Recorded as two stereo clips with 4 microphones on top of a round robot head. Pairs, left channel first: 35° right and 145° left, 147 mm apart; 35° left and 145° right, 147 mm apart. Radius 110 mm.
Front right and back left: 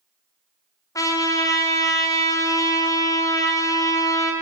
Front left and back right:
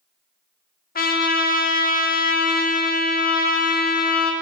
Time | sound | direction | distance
0.9 | a trumpet | 35° left | 1.6 m